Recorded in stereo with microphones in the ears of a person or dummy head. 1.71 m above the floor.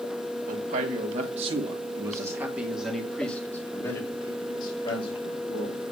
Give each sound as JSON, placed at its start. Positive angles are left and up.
{"t": 0.5, "sound": "a man speaking", "side_deg": -50, "distance_m": 2.0}